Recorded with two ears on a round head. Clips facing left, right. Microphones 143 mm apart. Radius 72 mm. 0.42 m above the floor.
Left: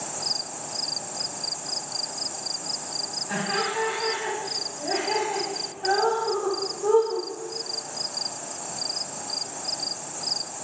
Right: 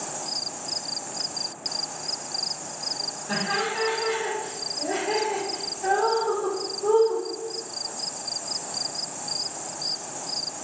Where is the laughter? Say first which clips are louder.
Even; 50° right (ahead or behind), 1.8 m; by 7.2 s 5° left (ahead or behind), 1.8 m.